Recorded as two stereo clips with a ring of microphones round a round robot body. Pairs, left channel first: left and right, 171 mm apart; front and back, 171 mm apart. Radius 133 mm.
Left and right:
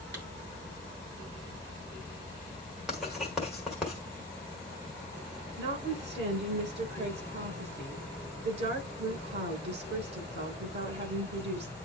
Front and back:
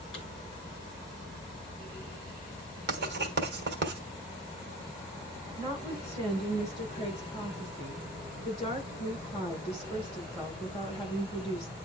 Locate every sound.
0.1 s a clap: 70° right, 8 m
2.9 s writing: straight behind, 1.5 m
5.6 s a woman speaking: 75° right, 6.5 m